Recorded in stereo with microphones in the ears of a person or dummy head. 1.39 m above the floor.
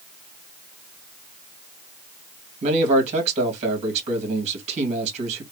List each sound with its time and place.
2.6 s a man speaking: 45° right (ahead or behind), 1.7 m